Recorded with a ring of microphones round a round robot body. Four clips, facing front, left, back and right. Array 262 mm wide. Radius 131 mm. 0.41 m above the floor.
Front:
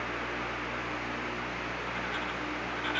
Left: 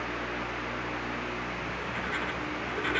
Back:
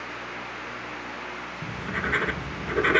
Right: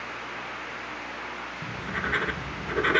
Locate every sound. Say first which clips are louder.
1.6 s writing: right 2 dB, back 4 dB; 155° right